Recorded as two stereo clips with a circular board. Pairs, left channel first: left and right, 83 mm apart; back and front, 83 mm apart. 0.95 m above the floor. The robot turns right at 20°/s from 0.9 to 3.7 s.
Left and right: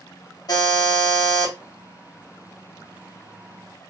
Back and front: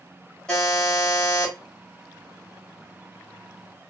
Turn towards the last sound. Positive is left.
turn(degrees=150)